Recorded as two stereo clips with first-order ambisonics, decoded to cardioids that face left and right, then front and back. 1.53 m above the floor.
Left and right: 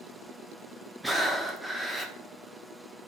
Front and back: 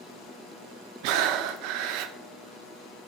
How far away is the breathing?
About 0.6 m.